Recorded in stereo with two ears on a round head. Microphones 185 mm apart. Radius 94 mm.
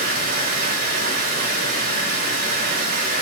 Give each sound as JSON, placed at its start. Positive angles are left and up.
{"t": 0.0, "sound": "running water", "side_deg": -45, "distance_m": 3.0}